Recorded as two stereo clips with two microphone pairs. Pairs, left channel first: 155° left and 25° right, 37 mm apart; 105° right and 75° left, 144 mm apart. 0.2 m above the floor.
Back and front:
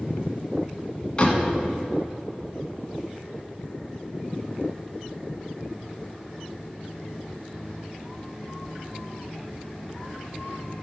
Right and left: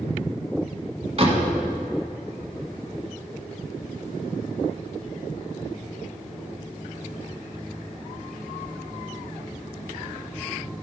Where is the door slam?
95° left, 1.6 m.